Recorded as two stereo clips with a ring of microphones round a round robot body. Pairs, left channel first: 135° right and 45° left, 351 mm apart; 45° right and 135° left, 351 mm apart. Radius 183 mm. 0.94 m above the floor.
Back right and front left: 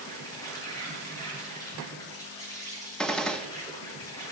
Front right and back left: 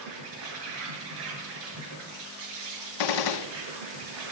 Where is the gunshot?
45° right, 0.9 m.